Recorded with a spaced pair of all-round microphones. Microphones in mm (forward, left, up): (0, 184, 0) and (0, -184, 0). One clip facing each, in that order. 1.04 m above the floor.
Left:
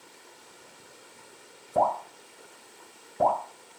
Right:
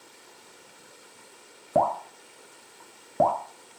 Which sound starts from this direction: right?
Dripping, at 1.8 s.